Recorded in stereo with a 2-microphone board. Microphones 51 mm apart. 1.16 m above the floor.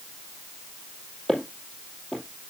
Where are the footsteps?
5° left (ahead or behind), 2.5 m.